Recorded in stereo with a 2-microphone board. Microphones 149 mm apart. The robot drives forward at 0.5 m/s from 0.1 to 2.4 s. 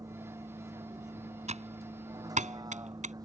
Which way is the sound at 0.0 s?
25° right (ahead or behind).